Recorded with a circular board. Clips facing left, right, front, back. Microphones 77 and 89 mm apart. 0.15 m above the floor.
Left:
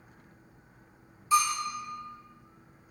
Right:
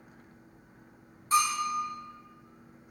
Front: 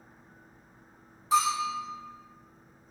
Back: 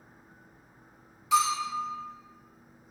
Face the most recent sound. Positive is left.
turn(degrees=-45)